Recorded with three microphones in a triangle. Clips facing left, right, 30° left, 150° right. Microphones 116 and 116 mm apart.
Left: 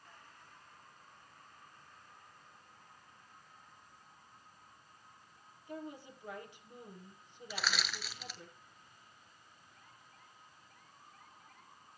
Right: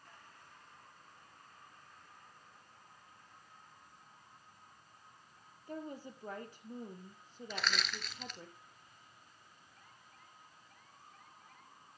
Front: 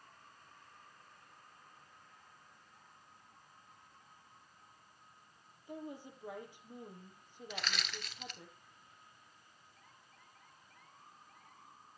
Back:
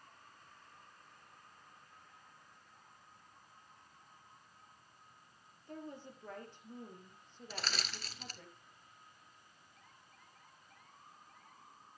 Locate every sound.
5.7 s a woman speaking: 50° right, 3 m
7.5 s crushing: 175° left, 1.1 m